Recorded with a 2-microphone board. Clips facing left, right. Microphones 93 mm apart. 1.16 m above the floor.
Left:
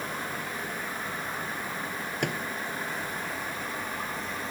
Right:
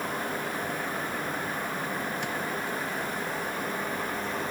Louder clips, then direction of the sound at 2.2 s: Left 1 dB; 65° left (ahead or behind).